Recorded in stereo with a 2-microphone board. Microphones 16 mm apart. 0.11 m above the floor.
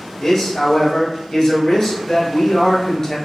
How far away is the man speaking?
About 1.3 m.